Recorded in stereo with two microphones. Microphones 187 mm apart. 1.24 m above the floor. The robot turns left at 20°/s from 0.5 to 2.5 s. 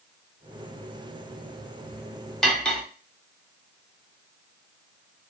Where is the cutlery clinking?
5° left (ahead or behind), 1.0 m.